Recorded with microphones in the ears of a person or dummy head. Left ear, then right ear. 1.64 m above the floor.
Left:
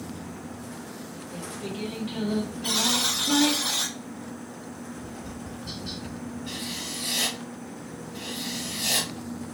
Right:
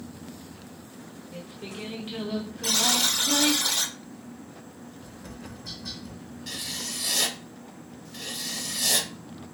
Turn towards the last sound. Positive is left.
turn(degrees=-70)  # may be behind; listen again after turning